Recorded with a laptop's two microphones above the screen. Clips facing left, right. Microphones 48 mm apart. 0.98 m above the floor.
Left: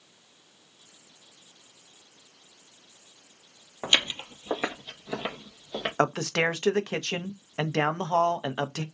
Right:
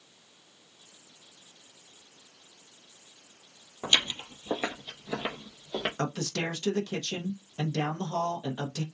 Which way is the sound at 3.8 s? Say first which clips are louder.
Left 2 dB; 30° left (ahead or behind).